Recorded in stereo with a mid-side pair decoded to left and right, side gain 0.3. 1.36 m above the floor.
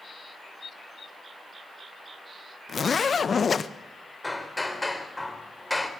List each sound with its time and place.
2.7 s a zipper: 55° left, 1.2 m
4.2 s hammering: 20° left, 4 m